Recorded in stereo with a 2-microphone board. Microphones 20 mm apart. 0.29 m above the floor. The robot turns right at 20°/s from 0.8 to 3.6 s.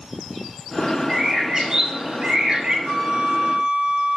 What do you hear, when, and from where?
1.1 s a bird: 160° right, 0.9 m; by 2.8 s 130° right, 0.9 m
2.9 s a flute: 55° right (ahead or behind), 2.5 m; by 4.2 s 50° right (ahead or behind), 2.5 m